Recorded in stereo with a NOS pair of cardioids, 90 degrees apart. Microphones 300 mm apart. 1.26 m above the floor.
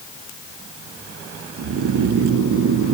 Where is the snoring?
55° right, 0.8 m.